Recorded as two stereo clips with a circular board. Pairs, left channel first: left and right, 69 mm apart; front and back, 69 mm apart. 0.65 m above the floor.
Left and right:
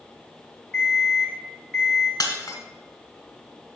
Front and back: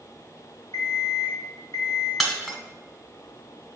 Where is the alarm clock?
10° left, 2 m.